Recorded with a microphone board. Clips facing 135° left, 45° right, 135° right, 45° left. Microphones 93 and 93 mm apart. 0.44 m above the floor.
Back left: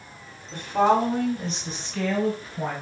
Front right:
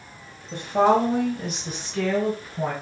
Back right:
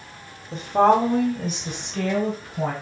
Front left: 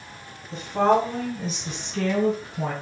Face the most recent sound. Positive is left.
turn(degrees=-125)